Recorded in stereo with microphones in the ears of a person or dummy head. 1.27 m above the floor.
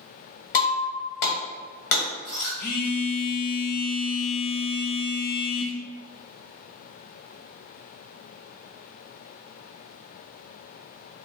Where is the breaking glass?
50° left (ahead or behind), 1.3 m.